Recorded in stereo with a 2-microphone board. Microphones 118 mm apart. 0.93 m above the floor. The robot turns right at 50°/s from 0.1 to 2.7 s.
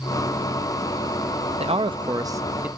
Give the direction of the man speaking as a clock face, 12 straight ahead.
2 o'clock.